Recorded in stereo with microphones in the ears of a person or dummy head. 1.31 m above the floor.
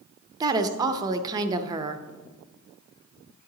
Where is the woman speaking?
20° right (ahead or behind), 0.5 m.